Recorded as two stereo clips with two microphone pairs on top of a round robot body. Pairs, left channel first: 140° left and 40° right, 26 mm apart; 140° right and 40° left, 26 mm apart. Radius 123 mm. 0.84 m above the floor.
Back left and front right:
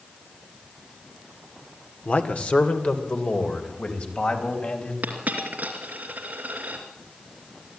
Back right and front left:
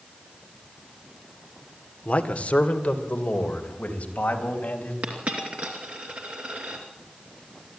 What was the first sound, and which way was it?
A man speaking, straight behind.